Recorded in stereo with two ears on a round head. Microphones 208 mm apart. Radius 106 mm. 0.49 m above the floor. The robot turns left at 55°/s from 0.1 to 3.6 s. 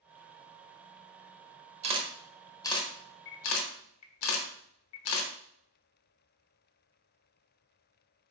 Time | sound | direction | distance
1.8 | a camera shutter | 30° right (ahead or behind) | 0.6 m